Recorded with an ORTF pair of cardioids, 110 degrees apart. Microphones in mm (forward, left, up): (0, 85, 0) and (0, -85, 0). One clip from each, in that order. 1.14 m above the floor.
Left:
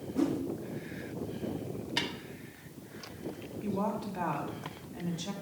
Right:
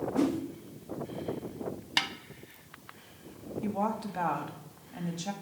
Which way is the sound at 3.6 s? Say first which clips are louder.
Right 2 dB; 35° right.